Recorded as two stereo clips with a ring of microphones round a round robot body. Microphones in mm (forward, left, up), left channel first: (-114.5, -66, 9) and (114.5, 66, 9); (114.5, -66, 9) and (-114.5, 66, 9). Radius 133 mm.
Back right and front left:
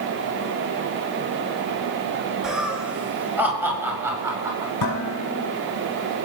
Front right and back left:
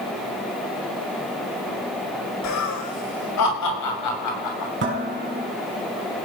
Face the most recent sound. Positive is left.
turn(degrees=-160)